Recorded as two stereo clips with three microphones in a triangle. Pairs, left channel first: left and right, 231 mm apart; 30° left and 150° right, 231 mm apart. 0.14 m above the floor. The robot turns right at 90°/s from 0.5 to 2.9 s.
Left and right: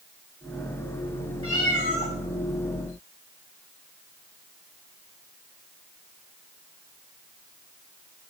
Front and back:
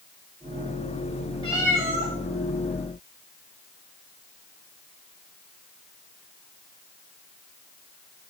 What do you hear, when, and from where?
1.4 s a cat meowing: 100° left, 5 m; by 2.1 s 160° left, 5 m